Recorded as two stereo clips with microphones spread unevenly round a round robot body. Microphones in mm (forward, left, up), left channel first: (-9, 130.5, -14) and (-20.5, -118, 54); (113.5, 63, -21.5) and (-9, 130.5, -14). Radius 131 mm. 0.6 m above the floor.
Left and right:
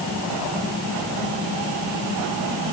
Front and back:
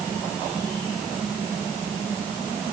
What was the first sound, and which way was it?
Only background noise.